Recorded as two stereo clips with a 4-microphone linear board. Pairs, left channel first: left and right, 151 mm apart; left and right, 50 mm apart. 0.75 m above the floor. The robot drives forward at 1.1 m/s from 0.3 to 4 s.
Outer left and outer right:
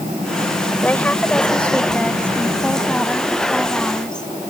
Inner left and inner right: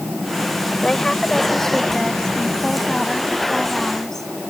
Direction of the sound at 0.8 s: 10° left (ahead or behind).